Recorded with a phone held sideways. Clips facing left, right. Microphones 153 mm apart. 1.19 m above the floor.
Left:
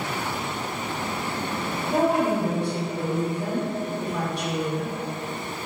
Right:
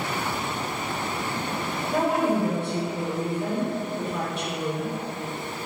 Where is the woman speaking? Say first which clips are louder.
Left 1 dB; 35° left (ahead or behind), 0.9 m.